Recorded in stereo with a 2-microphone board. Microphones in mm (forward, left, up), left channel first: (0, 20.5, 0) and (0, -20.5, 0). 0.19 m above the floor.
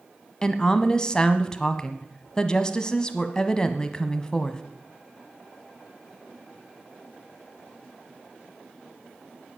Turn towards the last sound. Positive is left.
turn(degrees=20)  # may be behind; listen again after turning